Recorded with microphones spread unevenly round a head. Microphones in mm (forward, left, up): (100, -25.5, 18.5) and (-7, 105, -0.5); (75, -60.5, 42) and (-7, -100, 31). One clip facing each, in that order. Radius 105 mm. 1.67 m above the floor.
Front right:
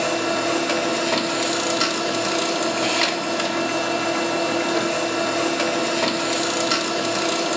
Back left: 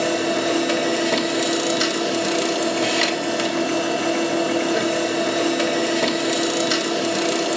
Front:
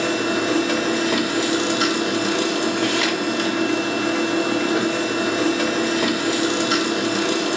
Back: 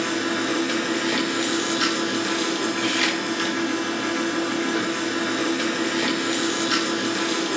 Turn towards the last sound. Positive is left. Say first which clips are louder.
# back left 2 dB, front 3 dB
turn(degrees=70)